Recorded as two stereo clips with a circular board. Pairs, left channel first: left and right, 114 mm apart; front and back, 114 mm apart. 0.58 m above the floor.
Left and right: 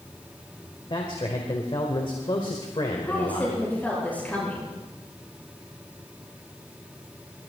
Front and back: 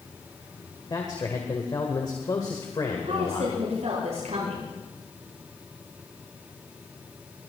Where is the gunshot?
I don't hear a gunshot.